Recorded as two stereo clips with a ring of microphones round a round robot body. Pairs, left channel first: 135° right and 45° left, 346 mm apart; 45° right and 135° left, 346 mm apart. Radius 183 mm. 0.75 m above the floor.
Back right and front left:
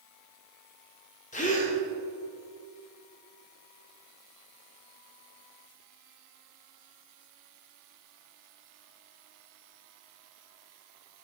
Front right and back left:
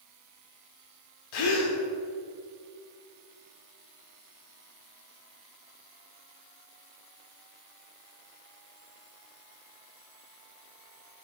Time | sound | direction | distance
1.3 | a gasp | 65° right | 1.7 m